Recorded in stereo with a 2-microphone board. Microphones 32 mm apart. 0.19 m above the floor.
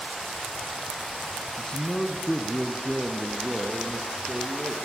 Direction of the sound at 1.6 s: 25° left (ahead or behind).